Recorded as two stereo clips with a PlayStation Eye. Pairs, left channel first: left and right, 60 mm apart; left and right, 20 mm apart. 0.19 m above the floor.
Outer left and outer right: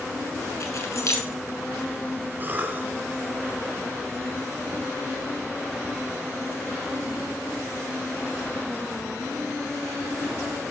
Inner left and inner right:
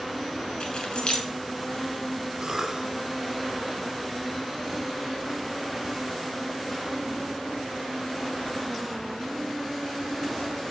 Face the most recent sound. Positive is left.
turn(degrees=-30)  # may be behind; listen again after turning